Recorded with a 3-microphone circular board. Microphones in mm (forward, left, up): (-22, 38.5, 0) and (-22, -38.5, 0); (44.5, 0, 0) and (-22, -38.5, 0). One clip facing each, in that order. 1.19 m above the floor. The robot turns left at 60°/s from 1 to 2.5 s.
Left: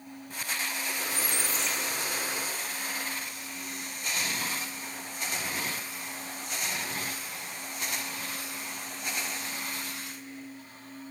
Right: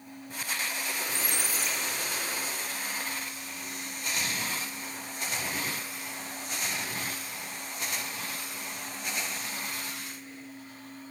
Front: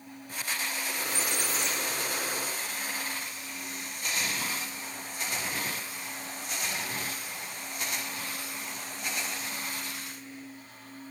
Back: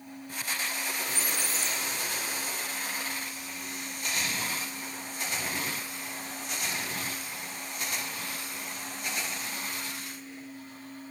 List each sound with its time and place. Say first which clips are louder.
1.1 s a squeak: left 1 dB, front 1 dB; 135° right, 0.6 m; by 2.5 s 140° left, 0.6 m